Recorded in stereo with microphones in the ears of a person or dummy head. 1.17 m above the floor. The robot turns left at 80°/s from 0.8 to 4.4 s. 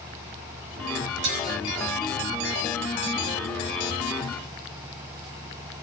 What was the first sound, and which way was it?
Dishes clattering, 70° right (ahead or behind).